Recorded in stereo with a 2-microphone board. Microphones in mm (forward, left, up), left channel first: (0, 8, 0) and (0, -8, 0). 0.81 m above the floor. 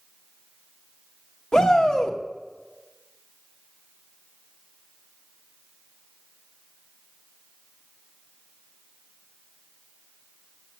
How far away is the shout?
About 1.9 m.